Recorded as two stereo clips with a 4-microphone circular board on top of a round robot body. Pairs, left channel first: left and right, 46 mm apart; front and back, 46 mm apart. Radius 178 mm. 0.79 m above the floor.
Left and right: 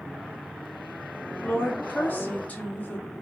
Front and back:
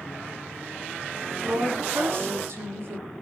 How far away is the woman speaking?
About 2.5 m.